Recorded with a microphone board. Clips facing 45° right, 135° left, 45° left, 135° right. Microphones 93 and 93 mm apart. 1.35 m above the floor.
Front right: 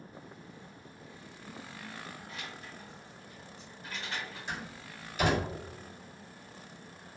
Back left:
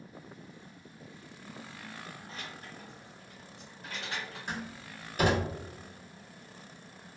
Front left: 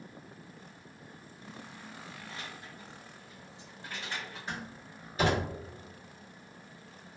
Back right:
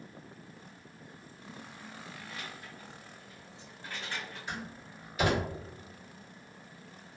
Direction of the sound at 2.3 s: 90° left.